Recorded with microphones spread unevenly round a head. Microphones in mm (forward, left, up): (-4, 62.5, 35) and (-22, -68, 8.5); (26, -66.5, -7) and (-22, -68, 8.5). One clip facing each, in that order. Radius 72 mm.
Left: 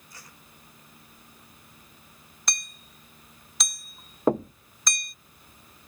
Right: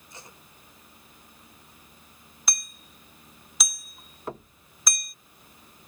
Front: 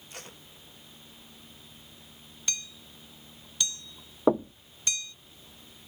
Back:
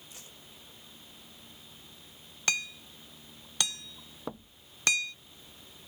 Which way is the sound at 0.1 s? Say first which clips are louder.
Right 4 dB, front 11 dB; 25° right.